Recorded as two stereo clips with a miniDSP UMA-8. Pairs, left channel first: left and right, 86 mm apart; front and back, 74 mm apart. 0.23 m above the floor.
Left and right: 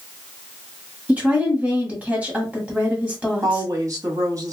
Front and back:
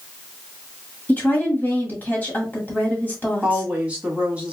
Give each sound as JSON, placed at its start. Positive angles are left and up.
{"t": 1.1, "sound": "a woman speaking", "azimuth_deg": -35, "distance_m": 1.5}
{"t": 3.4, "sound": "a woman speaking", "azimuth_deg": -115, "distance_m": 1.4}